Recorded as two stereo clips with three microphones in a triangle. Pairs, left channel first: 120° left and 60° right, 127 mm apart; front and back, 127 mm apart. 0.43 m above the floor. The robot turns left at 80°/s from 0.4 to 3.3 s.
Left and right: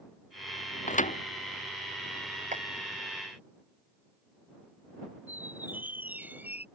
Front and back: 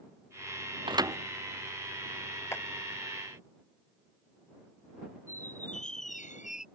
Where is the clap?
70° right; by 2.6 s 80° right.